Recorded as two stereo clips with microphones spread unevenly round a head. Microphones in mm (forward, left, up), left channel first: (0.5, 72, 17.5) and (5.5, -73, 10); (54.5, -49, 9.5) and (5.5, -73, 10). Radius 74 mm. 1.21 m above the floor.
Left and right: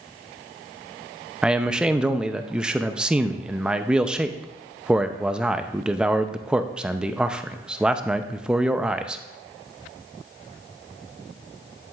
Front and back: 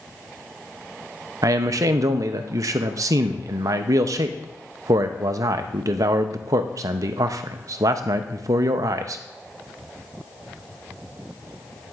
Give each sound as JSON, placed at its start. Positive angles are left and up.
{"t": 1.4, "sound": "a man speaking", "azimuth_deg": -170, "distance_m": 0.5}